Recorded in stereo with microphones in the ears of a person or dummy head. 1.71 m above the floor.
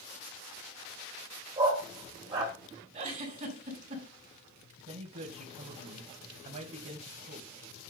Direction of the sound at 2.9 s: 45° right (ahead or behind).